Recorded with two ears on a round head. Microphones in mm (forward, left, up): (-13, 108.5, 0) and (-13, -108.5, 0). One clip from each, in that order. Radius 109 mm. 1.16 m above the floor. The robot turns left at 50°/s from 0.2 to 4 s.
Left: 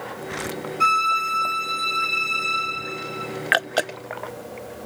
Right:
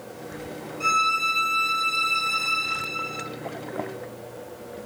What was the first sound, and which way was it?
A violin, 35° left.